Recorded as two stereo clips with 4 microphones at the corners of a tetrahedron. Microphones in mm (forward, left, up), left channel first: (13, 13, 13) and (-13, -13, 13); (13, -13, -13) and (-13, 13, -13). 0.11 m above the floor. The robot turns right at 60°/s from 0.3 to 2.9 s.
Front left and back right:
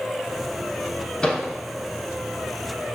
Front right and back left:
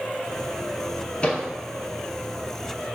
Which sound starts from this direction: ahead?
A microwave, at 1.2 s.